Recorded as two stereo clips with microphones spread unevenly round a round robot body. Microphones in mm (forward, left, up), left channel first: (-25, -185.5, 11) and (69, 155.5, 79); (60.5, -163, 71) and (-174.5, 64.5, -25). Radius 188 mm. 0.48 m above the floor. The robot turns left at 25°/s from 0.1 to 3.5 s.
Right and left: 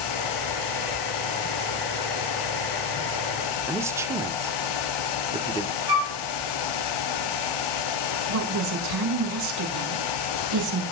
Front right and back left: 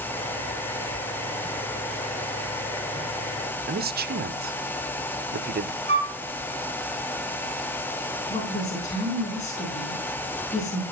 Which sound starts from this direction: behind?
A man speaking, at 3.7 s.